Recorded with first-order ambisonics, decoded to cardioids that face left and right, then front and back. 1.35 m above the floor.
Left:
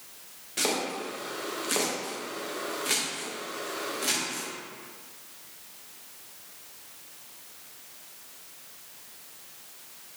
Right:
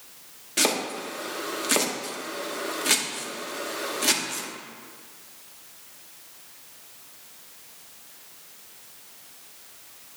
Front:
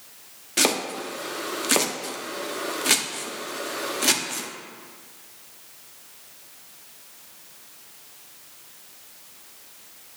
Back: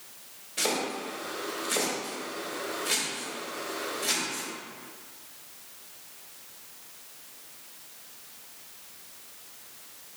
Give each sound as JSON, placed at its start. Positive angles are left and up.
{"t": 0.6, "sound": "chopping", "azimuth_deg": -25, "distance_m": 0.8}